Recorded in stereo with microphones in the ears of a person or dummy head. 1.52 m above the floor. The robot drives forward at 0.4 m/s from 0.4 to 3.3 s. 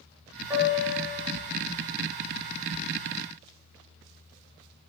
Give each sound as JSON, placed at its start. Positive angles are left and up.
{"t": 0.5, "sound": "a piano", "side_deg": -15, "distance_m": 0.7}